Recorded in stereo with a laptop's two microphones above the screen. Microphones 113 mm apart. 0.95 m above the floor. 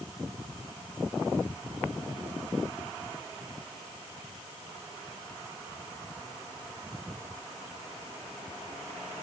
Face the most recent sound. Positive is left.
No sound to turn to.